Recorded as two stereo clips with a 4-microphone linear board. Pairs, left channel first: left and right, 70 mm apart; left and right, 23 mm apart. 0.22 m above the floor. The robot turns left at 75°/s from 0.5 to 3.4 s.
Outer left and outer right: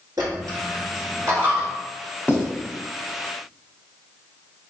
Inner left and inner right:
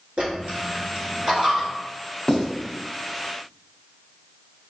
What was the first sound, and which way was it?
A dropped coin, 65° right (ahead or behind).